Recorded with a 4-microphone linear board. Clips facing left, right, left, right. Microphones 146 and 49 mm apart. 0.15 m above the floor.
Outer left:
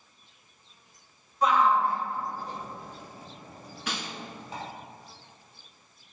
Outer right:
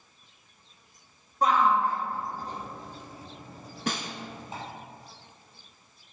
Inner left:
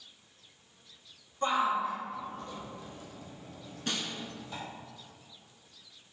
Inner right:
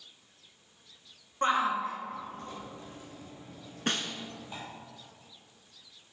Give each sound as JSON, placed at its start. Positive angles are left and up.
{"t": 1.4, "sound": "a shout", "side_deg": -45, "distance_m": 1.6}
{"t": 3.9, "sound": "a snare drum", "side_deg": -45, "distance_m": 0.7}